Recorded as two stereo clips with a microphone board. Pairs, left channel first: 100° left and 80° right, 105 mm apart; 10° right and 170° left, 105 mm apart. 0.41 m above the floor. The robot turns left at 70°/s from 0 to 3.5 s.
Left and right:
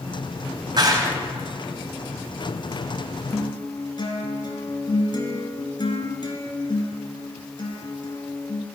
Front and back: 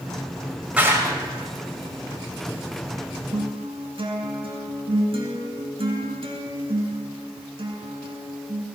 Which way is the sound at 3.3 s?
155° left.